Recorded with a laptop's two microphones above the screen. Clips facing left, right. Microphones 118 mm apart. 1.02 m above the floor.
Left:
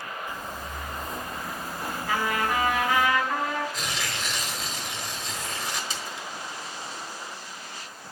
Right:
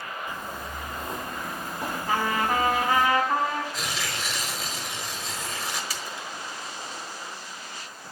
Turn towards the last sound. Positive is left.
turn(degrees=25)  # may be behind; listen again after turning